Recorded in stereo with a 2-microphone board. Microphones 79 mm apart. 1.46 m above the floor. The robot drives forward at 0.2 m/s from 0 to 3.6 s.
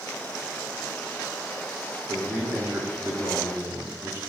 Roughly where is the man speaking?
Right.